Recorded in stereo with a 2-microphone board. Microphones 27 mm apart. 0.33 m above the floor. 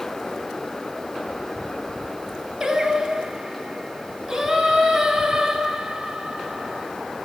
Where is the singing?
15° right (ahead or behind), 1.9 m.